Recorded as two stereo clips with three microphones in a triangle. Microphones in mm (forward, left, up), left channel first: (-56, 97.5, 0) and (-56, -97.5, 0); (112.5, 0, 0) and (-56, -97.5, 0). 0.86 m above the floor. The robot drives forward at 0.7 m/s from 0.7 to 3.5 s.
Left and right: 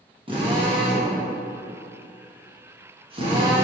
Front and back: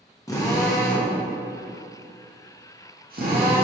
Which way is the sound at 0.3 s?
40° right.